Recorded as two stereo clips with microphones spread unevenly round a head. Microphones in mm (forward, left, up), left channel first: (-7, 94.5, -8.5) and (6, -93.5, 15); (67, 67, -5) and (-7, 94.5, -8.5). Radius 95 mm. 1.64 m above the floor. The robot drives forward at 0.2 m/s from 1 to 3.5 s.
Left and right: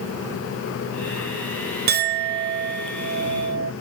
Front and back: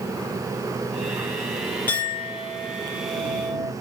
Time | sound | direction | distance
1.9 | a clink | 90° right | 0.9 m